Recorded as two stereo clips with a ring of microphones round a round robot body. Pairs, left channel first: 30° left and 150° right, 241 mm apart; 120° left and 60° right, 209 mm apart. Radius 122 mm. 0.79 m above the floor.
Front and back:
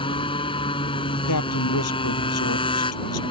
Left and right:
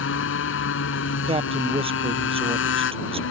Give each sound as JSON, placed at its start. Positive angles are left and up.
{"t": 0.0, "sound": "a motorcycle", "azimuth_deg": 100}
{"t": 1.3, "sound": "a man speaking", "azimuth_deg": 5}